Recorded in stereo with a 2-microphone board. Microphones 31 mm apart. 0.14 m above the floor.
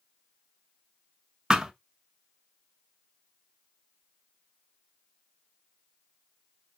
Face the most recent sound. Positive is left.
turn(degrees=-20)  # may be behind; listen again after turning